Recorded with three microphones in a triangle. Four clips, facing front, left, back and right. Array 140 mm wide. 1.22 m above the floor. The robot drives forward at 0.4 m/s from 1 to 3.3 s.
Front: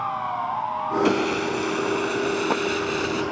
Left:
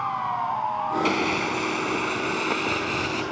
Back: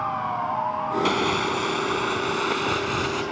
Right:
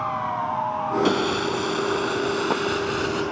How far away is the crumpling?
About 4.5 m.